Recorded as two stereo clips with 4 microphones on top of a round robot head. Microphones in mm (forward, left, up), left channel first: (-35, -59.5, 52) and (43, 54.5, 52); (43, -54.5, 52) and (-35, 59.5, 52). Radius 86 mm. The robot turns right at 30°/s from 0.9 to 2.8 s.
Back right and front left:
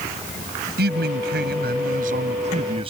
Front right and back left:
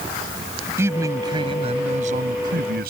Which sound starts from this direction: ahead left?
A man speaking, at 0.8 s.